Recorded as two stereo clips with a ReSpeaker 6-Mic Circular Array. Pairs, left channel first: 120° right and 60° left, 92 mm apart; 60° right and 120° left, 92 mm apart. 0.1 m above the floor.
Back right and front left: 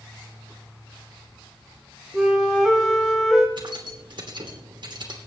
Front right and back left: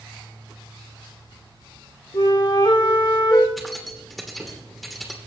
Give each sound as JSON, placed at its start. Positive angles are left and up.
{"t": 2.1, "sound": "a flute", "azimuth_deg": -30, "distance_m": 3.0}
{"t": 3.6, "sound": "keys jangling", "azimuth_deg": 30, "distance_m": 3.0}